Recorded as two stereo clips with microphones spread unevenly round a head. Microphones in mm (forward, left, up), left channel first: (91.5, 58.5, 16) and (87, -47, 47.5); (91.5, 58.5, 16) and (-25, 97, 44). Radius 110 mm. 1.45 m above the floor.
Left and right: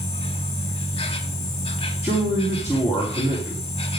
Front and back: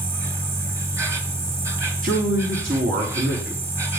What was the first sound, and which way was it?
An insect, 145° left.